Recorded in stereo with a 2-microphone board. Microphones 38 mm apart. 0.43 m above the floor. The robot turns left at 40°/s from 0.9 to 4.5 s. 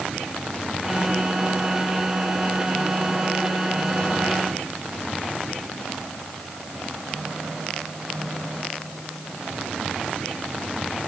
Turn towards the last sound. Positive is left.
No sound to turn to.